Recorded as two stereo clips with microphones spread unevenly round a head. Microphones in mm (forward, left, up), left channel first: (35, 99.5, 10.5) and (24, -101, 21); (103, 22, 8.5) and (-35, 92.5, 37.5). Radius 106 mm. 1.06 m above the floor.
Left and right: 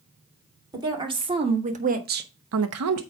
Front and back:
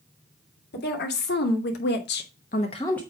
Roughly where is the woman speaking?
Ahead right.